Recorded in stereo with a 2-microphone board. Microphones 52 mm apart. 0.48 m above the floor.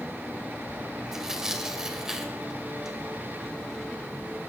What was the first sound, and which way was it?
Tearing paper, 10° right (ahead or behind).